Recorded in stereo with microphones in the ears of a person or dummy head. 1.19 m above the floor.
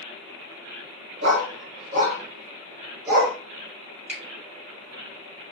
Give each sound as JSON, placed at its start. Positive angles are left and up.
{"t": 1.2, "sound": "a dog barking", "side_deg": -65, "distance_m": 1.8}
{"t": 4.1, "sound": "a finger snap", "side_deg": -10, "distance_m": 1.7}